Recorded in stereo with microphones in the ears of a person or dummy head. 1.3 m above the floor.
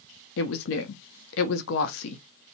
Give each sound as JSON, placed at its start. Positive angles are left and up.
{"t": 0.4, "sound": "a woman speaking", "side_deg": 70, "distance_m": 0.7}